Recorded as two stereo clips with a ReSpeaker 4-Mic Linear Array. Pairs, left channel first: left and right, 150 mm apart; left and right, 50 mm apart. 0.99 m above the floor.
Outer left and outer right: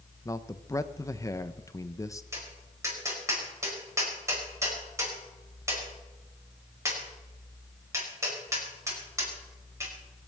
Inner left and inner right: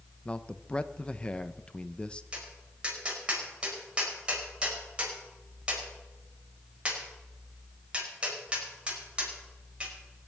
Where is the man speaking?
20° left (ahead or behind), 0.8 m.